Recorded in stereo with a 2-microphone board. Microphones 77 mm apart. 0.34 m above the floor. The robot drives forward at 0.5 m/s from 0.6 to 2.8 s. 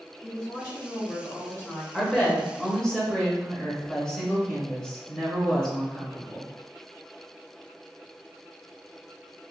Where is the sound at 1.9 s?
10° left (ahead or behind), 1.0 m.